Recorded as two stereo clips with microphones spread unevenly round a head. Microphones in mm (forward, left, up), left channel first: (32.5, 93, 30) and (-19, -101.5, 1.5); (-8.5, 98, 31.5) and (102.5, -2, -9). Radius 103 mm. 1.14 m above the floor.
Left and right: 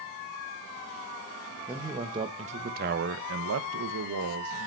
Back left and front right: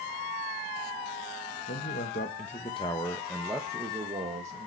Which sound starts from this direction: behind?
A man speaking, at 1.7 s.